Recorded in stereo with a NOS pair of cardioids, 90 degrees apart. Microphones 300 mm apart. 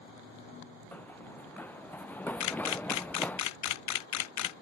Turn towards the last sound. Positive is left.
turn(degrees=65)